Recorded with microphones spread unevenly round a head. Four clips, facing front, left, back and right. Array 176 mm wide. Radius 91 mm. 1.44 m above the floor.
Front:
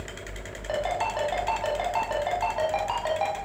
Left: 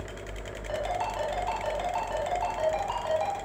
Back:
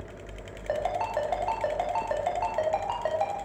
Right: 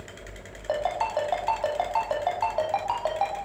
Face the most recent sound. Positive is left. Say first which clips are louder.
# right 4 dB, front 1 dB
turn(degrees=-120)